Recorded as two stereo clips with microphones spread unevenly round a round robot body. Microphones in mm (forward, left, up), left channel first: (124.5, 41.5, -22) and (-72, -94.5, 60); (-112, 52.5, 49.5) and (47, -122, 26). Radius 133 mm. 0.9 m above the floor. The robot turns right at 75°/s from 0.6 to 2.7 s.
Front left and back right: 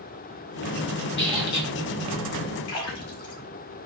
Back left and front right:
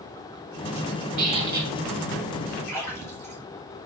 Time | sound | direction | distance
1.2 | a squeak | 15° right | 3 m
2.7 | a splash | 50° left | 3 m